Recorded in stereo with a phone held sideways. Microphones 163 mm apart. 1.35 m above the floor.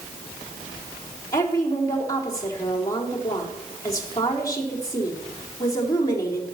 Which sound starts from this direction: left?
A woman speaking, at 1.3 s.